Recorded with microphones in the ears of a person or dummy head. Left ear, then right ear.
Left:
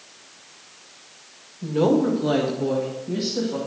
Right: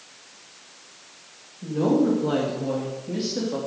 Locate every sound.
1.6 s a woman speaking: 55° left (ahead or behind), 1.9 m; by 3.6 s 25° right (ahead or behind), 2.5 m